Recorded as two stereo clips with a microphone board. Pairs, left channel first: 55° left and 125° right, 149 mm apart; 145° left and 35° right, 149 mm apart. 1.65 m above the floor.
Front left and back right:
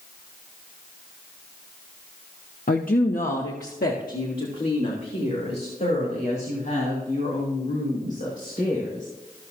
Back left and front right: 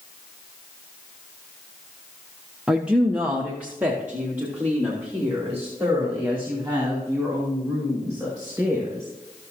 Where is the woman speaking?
50° left, 0.7 m; by 9.1 s 40° left, 6 m.